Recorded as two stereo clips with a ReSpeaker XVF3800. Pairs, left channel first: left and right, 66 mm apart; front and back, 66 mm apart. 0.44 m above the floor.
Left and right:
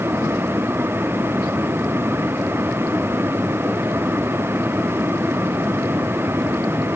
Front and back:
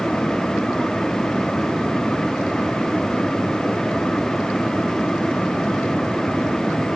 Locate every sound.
Only background noise.